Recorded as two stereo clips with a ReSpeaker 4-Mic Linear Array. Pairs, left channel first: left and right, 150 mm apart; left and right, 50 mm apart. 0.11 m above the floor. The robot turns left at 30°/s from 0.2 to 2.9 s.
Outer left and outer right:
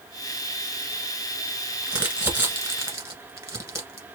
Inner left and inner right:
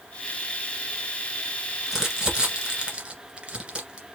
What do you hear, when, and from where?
1.9 s crumpling: 5° right (ahead or behind), 1.7 m; by 4.0 s 20° right (ahead or behind), 1.7 m